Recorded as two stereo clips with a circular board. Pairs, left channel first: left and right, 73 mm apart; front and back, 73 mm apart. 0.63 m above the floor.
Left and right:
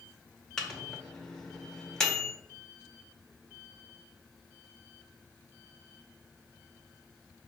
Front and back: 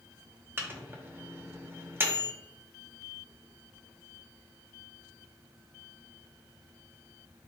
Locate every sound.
0.6 s a microwave: 165° left, 0.7 m